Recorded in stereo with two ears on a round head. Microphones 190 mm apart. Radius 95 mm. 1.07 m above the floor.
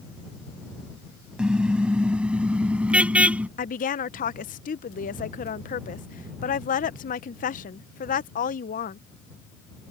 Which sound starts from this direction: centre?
A car horn, at 1.4 s.